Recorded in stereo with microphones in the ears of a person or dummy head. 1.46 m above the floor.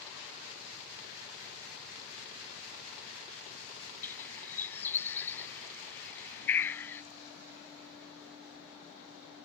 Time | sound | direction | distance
4.0 | a bird | 10° left (ahead or behind) | ?